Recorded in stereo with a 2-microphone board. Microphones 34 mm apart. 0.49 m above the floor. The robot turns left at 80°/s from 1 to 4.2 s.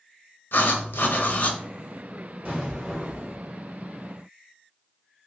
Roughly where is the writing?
Left.